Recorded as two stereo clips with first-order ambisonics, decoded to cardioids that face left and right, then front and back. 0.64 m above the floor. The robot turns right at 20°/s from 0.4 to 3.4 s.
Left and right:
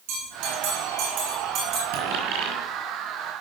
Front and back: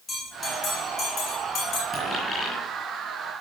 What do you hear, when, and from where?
0.1 s a bell: 75° right, 8 m; by 1.8 s 45° right, 8 m
1.9 s a dropped coin: 80° right, 6.5 m; by 2.6 s 70° right, 6.5 m